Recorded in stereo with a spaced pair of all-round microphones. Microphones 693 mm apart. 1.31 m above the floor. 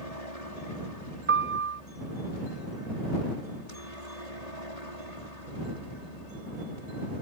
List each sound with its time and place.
0.0 s a helicopter: 65° left (ahead or behind); by 7.2 s 70° left (ahead or behind)
1.3 s a piano: 15° right (ahead or behind)